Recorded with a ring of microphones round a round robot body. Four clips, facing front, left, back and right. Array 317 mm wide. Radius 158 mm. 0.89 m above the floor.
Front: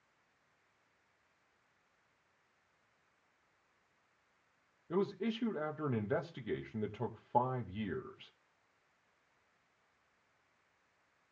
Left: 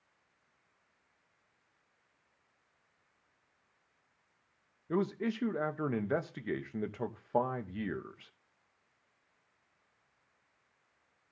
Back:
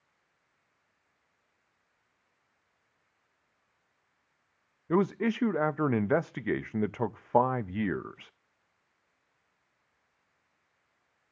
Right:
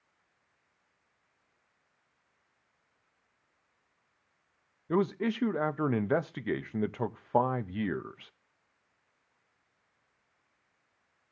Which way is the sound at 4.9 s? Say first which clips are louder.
Right 4 dB, back 8 dB; 150° right.